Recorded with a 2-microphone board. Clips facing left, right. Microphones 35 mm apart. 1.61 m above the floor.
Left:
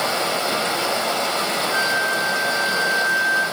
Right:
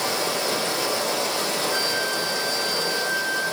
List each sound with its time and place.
0.0 s running water: 35° left (ahead or behind), 0.8 m
1.7 s a flute: 35° right (ahead or behind), 1.9 m